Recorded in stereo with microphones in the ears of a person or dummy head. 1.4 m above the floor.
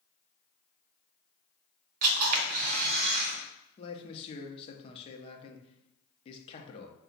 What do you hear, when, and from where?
2.0 s a camera shutter: 45° right (ahead or behind), 1.1 m
3.8 s a man speaking: 30° left (ahead or behind), 0.8 m